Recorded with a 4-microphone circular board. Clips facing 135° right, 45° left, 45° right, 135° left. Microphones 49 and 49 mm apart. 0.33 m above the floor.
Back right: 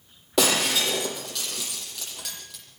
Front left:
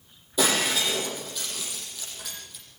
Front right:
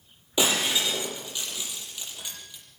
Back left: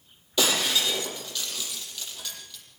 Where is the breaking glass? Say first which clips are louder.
Back right 1 dB, even; 115° right, 6.5 m.